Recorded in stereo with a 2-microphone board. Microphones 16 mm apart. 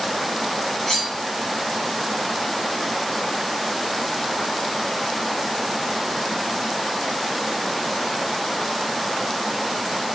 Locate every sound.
0.9 s cutlery clinking: 30° left (ahead or behind), 1.5 m